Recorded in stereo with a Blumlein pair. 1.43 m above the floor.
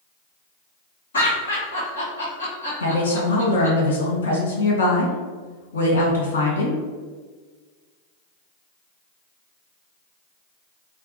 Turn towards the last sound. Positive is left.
turn(degrees=70)